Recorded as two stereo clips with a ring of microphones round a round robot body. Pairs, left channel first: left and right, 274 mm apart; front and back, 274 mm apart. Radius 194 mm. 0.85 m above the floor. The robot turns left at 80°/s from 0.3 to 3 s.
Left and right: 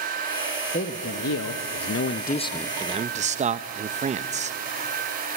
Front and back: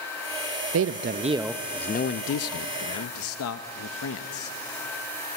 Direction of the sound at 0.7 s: 155° left.